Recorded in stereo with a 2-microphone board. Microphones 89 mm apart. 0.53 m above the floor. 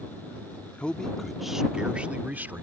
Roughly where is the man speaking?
Centre.